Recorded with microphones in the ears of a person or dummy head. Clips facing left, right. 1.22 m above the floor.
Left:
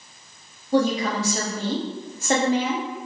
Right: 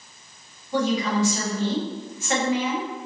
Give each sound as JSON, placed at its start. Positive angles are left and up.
{"t": 0.7, "sound": "a woman speaking", "side_deg": 30, "distance_m": 0.7}